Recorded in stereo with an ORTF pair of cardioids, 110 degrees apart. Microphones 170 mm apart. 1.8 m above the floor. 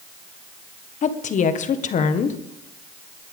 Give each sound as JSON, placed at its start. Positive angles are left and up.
{"t": 1.0, "sound": "a woman speaking", "azimuth_deg": 45, "distance_m": 1.6}